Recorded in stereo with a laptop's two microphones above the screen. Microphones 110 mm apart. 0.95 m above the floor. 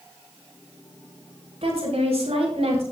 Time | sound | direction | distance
1.6 | a woman speaking | 75° right (ahead or behind) | 5.5 m